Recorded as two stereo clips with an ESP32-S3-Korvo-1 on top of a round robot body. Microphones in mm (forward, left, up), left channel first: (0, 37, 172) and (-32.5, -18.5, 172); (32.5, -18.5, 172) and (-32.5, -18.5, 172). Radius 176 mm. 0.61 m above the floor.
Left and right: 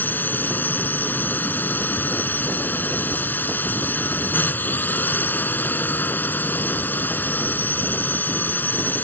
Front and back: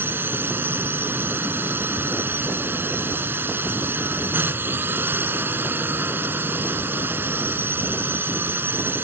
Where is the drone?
120° left.